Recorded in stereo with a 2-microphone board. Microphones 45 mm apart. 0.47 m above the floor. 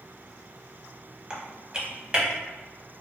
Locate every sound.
1.3 s typing on a keyboard: 20° right (ahead or behind), 0.6 m